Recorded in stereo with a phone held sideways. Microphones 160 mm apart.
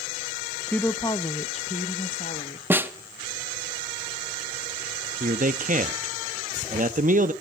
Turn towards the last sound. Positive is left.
turn(degrees=-60)  # may be behind; listen again after turning